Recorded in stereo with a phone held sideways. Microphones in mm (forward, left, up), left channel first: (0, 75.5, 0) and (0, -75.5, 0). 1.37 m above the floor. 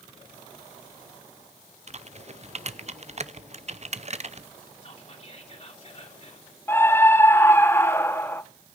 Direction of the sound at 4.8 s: 40° left (ahead or behind).